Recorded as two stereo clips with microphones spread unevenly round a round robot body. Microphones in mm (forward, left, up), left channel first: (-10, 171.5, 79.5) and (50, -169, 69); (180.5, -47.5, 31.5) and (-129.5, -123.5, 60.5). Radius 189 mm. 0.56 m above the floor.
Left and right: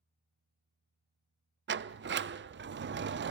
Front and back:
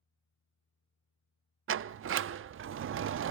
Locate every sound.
1.7 s a sliding door: 120° right, 0.5 m